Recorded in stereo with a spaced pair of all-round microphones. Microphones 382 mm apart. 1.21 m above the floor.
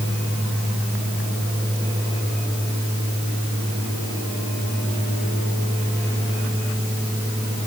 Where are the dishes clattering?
I don't hear dishes clattering.